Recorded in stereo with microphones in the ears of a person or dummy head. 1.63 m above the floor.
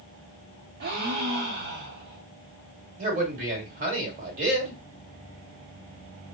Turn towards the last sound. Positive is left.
turn(degrees=-45)  # may be behind; listen again after turning